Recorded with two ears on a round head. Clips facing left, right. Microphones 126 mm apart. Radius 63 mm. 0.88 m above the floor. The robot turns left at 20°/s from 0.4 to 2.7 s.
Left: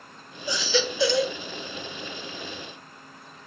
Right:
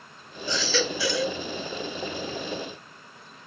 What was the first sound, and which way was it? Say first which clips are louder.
A baby crying: left 1 dB; 10° left (ahead or behind).